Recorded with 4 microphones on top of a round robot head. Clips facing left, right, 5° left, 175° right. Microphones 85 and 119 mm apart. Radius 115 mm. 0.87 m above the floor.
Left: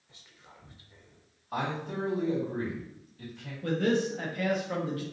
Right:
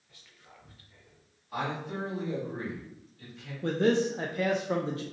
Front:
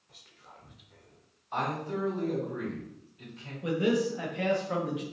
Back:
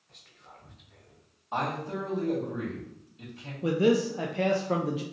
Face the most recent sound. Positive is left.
turn(degrees=-140)